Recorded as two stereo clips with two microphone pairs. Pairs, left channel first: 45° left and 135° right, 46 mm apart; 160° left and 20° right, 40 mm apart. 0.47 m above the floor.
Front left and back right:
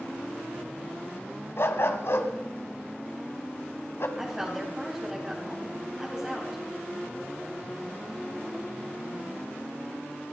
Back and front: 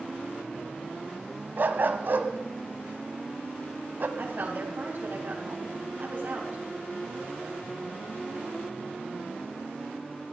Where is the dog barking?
20° left, 1.4 m.